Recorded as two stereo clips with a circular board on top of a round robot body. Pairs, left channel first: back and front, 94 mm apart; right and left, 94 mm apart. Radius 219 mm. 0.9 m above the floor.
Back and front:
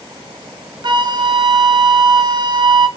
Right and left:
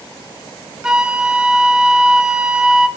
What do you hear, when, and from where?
0.8 s a flute: 10° left, 1.1 m